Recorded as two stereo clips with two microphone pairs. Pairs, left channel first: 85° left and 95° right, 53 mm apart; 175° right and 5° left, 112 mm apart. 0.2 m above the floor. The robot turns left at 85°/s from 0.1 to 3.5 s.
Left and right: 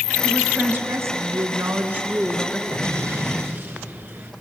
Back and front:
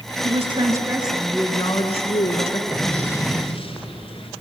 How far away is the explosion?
About 3.5 m.